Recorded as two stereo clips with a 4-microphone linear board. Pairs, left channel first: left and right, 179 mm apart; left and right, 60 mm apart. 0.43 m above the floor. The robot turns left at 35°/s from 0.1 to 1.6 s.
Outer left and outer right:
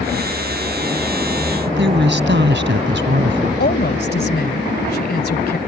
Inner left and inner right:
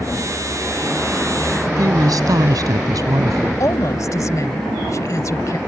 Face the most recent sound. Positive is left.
turn(degrees=60)  # may be behind; listen again after turning